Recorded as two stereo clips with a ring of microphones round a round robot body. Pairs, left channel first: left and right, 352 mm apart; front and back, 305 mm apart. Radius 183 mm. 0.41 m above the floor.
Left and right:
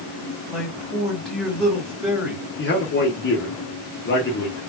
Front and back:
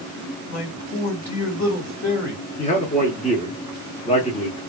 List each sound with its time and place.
0.5 s a man speaking: straight ahead, 2 m
2.6 s a man speaking: 55° left, 1.0 m